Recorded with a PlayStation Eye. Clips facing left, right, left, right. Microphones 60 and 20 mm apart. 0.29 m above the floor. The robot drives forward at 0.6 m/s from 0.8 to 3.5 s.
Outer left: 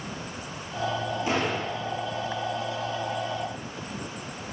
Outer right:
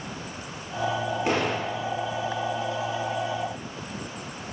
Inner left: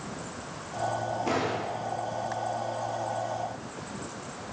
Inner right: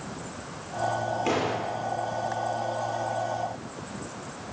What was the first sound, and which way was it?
A door slam, 60° right (ahead or behind).